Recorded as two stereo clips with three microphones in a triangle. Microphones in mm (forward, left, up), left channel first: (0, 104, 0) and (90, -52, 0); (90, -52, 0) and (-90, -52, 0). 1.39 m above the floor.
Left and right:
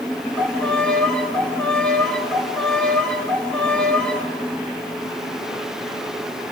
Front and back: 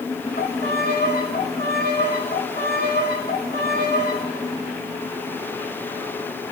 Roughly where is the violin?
Ahead left.